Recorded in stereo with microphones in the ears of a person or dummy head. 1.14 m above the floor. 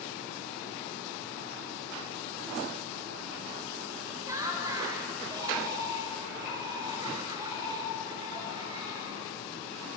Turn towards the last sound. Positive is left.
turn(degrees=-25)  # may be behind; listen again after turning